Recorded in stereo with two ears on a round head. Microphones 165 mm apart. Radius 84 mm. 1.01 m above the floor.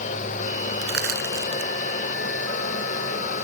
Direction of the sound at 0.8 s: 60° right (ahead or behind).